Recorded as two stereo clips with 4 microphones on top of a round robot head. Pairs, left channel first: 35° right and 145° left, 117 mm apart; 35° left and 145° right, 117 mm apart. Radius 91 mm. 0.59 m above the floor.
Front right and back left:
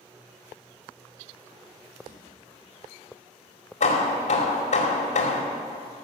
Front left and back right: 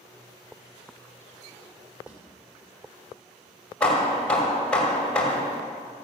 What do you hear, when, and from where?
2.1 s a drawer: 135° left, 3.5 m
3.8 s hammering: 45° right, 1.9 m